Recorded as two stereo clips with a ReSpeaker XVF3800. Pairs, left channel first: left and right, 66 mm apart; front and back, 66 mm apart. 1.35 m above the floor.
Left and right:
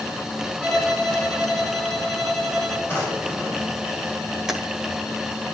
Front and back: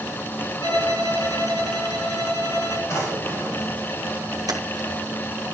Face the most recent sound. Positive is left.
turn(degrees=-175)